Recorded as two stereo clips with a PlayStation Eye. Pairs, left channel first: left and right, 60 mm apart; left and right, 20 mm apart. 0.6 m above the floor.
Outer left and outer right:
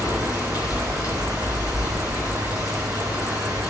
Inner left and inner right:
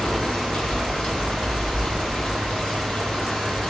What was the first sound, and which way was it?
Running water, 85° left.